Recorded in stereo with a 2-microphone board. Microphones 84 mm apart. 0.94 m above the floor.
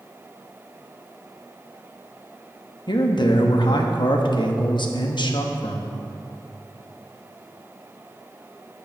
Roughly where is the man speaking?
Left.